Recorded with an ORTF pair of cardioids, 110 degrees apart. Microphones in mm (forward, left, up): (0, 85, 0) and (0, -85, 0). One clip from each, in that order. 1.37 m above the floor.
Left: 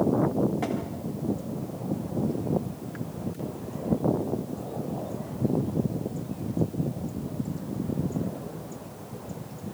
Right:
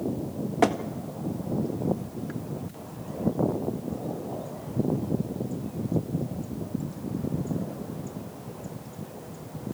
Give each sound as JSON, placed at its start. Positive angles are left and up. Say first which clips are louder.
{"t": 0.6, "sound": "tapping", "louder": "right 8 dB", "azimuth_deg": -65, "distance_m": 1.9}